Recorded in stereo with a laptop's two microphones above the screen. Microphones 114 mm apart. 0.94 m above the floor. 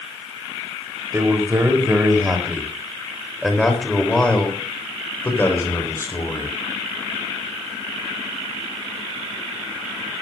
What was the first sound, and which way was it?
A man speaking, 25° right (ahead or behind).